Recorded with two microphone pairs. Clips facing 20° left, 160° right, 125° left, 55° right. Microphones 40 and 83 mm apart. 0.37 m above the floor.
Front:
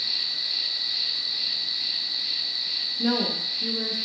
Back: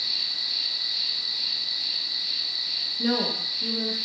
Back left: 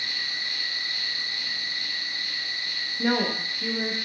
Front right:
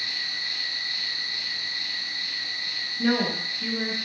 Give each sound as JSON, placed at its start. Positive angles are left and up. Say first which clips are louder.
{"t": 0.0, "sound": "an insect", "louder": "even, back left 1 dB", "azimuth_deg": 90, "distance_m": 1.2}
{"t": 3.0, "sound": "a woman speaking", "louder": "front 1 dB, front right 1 dB", "azimuth_deg": 110, "distance_m": 0.8}